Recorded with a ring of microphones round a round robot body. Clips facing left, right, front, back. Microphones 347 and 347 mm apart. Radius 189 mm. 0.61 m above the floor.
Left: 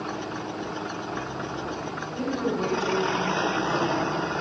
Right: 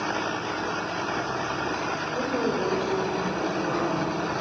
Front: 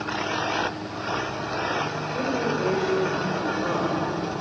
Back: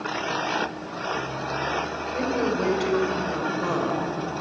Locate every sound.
2.1 s a woman speaking: 165° left, 1.9 m